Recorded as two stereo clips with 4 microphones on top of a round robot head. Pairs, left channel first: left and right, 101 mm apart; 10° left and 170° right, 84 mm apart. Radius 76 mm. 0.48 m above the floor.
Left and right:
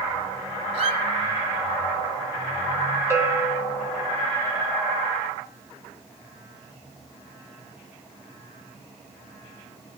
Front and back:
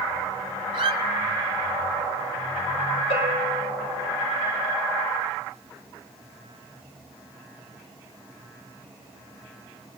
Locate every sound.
0.7 s a squeak: 130° right, 2 m
3.1 s a bell: 25° right, 5.5 m